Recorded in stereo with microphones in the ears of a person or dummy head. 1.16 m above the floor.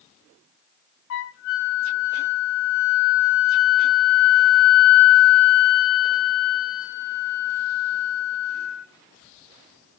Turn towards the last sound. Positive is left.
turn(degrees=45)  # may be behind; listen again after turning